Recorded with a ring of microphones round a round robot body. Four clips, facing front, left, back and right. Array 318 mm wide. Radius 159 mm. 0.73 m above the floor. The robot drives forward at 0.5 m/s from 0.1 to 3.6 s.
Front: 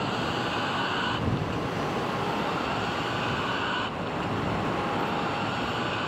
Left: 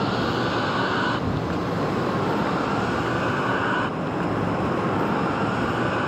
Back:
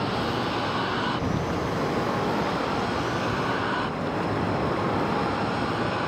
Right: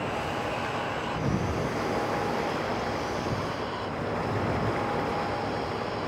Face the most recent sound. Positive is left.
turn(degrees=100)